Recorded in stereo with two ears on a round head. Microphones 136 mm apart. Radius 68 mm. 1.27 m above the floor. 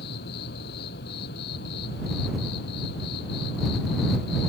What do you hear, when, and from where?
0.0 s an insect: 80° left